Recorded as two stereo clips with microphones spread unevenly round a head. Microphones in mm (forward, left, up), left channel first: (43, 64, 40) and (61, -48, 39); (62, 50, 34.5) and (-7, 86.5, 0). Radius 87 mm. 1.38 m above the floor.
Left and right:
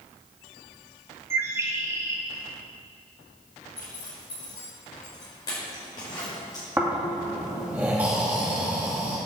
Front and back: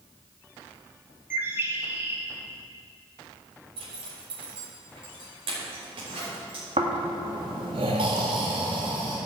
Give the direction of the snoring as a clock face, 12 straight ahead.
5 o'clock.